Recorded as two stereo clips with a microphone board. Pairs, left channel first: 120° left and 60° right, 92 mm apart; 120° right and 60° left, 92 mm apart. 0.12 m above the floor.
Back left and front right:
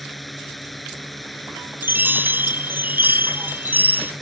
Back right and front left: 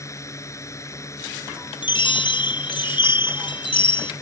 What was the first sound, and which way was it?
A drone, 150° right.